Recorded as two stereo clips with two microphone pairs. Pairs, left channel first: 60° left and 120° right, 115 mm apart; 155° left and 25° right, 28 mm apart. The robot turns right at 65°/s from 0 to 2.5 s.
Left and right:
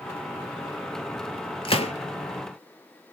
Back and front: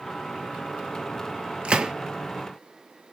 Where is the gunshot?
25° left, 0.8 m; by 1.9 s 40° left, 0.8 m.